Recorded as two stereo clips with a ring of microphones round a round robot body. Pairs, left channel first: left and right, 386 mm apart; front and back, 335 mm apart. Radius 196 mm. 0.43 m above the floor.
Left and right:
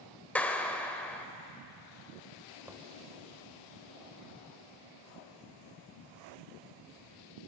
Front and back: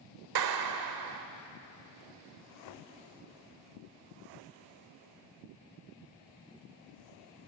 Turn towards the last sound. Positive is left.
turn(degrees=-5)